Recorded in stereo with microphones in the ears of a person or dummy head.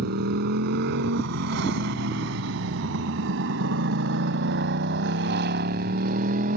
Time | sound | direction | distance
0.0 | a motorcycle | 60° right (ahead or behind) | ?